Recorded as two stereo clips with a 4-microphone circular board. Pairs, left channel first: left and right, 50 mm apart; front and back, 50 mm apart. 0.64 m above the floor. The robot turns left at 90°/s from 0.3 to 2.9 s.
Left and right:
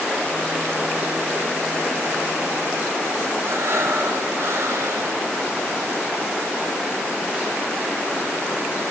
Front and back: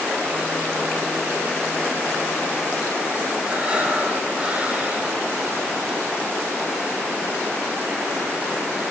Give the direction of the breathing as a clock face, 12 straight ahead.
4 o'clock.